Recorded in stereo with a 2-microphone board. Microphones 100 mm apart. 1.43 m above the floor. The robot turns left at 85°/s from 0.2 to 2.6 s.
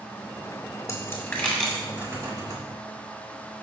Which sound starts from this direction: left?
A dropped coin, at 0.9 s.